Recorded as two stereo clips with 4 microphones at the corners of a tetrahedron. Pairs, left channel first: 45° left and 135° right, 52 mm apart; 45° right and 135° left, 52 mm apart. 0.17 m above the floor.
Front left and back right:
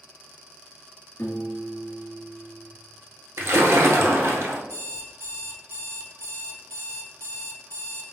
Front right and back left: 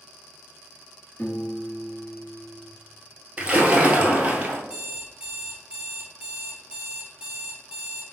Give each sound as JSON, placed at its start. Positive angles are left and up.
{"t": 1.2, "sound": "a piano", "azimuth_deg": 0, "distance_m": 0.9}
{"t": 3.4, "sound": "a splash", "azimuth_deg": -160, "distance_m": 0.8}
{"t": 4.7, "sound": "an alarm clock", "azimuth_deg": -160, "distance_m": 0.9}